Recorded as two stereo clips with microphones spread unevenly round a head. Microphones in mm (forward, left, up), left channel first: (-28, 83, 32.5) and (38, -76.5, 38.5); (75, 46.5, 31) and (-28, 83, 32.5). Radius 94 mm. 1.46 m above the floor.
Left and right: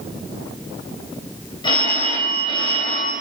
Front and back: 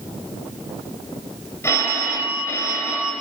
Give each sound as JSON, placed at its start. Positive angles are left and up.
{"t": 1.6, "sound": "a phone ringing", "azimuth_deg": 45, "distance_m": 4.5}